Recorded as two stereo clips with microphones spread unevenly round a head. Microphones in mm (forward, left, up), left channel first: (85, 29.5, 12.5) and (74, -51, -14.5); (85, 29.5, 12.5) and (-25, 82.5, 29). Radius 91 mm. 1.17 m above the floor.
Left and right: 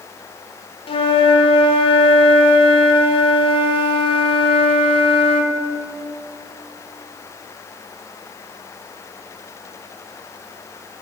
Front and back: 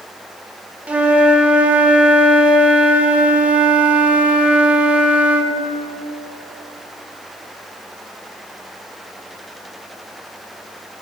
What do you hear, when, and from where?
0.9 s a flute: 70° left, 1.0 m